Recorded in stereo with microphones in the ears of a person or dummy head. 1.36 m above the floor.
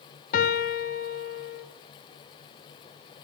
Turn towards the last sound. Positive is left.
turn(degrees=45)  # may be behind; listen again after turning